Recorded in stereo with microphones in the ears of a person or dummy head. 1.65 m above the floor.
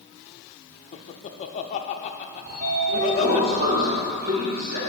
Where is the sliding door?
40° right (ahead or behind), 1.5 m.